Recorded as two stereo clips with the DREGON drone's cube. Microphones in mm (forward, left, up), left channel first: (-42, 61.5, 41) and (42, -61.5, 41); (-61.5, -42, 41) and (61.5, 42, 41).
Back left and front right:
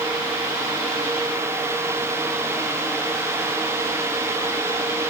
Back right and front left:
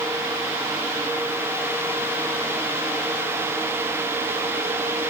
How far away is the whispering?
I don't hear whispering.